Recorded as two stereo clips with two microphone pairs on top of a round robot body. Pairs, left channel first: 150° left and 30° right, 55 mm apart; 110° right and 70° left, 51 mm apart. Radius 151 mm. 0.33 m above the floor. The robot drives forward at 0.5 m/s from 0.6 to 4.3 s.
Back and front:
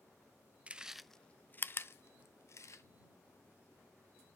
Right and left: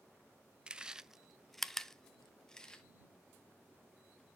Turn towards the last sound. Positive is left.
turn(degrees=175)